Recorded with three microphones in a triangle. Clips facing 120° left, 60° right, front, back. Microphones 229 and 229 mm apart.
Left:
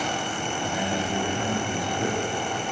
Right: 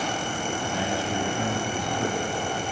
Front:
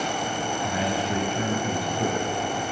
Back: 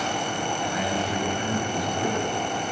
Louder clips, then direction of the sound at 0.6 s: Left 2 dB, front 2 dB; 55° left.